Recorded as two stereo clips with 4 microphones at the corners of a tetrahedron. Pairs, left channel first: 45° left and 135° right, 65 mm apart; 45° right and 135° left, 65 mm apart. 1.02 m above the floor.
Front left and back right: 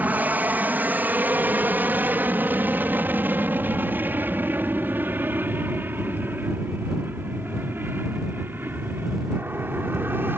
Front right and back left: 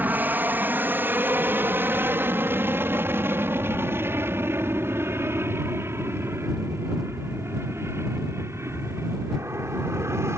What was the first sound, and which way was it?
An aircraft, straight behind.